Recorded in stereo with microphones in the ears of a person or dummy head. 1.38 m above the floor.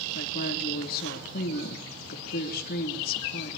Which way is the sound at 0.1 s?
55° left (ahead or behind).